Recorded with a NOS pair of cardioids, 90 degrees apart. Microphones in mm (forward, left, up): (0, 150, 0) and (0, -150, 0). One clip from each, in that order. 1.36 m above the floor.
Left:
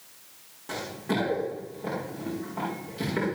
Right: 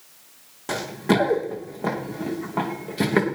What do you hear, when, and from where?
0.7 s running footsteps: 65° right, 4.5 m; by 3.3 s 75° right, 6 m